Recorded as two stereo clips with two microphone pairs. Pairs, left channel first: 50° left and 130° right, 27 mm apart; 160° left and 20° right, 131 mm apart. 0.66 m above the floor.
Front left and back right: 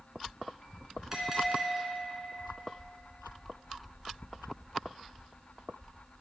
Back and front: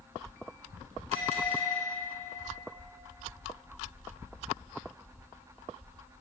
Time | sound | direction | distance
1.1 | a bell | 60° right | 2.5 m